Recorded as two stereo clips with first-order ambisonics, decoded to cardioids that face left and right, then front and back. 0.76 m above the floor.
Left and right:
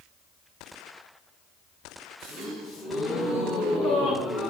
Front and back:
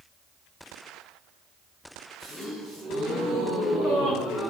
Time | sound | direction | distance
2.2 | a gasp | 120° left | 5.5 m